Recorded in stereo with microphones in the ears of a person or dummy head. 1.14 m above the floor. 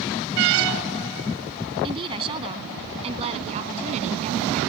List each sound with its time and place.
1.8 s a woman speaking: 25° right (ahead or behind); by 4.6 s 40° right (ahead or behind)